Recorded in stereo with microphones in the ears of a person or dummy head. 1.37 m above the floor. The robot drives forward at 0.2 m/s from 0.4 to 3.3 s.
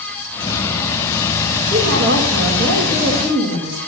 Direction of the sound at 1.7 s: 75° right (ahead or behind).